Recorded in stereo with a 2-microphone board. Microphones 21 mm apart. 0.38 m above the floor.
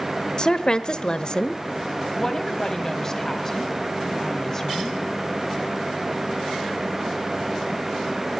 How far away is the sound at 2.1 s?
About 2 m.